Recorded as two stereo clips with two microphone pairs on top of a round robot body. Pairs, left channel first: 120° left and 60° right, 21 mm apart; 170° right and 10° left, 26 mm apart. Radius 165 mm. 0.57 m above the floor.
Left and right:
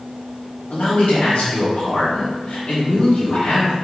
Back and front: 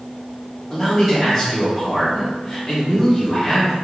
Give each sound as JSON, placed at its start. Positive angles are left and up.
{"t": 0.7, "sound": "a man speaking", "azimuth_deg": 100, "distance_m": 2.0}